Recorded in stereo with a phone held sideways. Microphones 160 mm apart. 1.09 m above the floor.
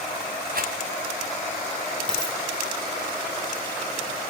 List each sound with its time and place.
0.5 s a rattle: 70° right (ahead or behind), 5.5 m
2.1 s a dropped coin: 5° left (ahead or behind), 6 m